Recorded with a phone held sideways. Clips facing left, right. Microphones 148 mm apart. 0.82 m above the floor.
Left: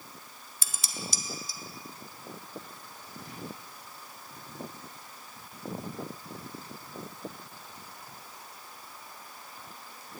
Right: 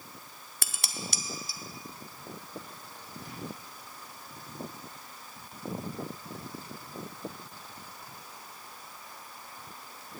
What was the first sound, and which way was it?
Dishes clattering, 65° right (ahead or behind).